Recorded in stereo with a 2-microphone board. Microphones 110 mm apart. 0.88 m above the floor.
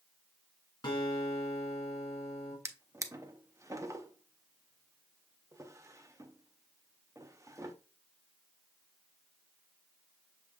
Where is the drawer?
25° right (ahead or behind), 0.5 m.